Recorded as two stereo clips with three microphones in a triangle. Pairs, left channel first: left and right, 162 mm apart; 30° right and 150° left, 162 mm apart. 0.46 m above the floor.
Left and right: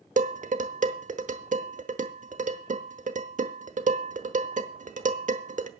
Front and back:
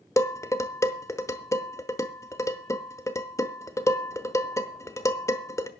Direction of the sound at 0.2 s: 100° right.